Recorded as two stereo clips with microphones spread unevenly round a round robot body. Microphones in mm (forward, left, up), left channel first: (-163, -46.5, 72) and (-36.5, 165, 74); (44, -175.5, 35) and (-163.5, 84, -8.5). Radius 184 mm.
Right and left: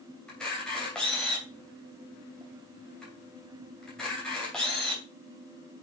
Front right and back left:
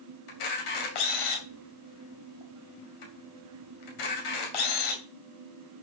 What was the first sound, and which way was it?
A camera shutter, 35° right.